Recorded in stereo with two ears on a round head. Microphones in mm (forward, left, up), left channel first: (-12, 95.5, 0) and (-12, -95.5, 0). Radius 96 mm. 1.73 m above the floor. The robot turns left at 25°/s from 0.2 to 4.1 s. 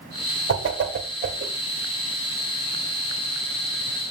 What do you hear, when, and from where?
0.5 s a whoosh: 55° right (ahead or behind), 1.8 m; by 1.5 s 30° right (ahead or behind), 1.8 m